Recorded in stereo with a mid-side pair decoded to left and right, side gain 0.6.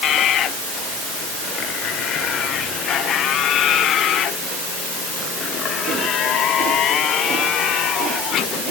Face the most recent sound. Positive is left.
No sound to turn to.